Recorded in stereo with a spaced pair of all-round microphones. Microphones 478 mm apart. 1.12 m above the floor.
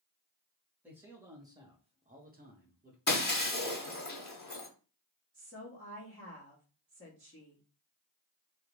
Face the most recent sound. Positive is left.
turn(degrees=10)  # may be behind; listen again after turning